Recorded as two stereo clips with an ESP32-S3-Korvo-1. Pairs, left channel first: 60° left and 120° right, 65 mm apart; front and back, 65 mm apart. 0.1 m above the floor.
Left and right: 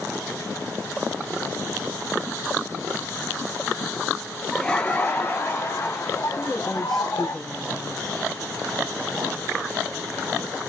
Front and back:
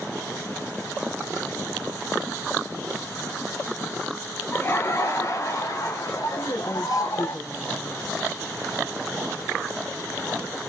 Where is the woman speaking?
25° right, 3.5 m.